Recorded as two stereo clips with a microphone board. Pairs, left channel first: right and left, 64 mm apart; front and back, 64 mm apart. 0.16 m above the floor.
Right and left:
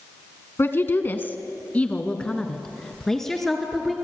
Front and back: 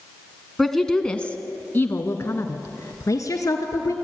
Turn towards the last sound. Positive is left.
turn(degrees=0)